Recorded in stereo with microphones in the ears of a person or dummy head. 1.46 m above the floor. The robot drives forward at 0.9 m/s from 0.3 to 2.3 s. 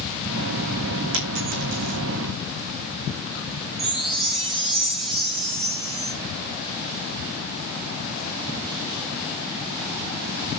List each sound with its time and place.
1.1 s a dropped coin: 65° right (ahead or behind), 6 m; by 2.0 s 60° right (ahead or behind), 6.5 m
3.8 s a chime: 25° right (ahead or behind), 4 m